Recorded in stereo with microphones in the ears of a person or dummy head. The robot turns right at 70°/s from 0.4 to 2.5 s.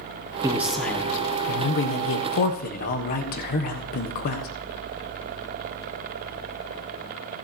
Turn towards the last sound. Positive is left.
turn(degrees=125)